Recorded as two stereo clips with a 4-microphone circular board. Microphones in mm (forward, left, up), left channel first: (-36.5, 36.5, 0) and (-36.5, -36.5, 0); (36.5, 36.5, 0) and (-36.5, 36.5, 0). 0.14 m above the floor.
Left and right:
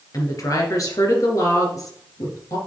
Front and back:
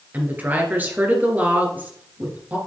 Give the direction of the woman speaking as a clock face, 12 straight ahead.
8 o'clock.